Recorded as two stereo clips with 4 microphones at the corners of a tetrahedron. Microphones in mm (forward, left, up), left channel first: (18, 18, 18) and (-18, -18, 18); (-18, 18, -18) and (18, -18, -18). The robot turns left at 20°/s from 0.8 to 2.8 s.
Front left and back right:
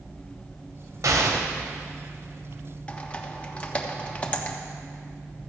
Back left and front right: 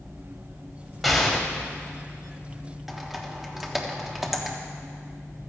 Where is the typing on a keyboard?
30° left, 1.3 m.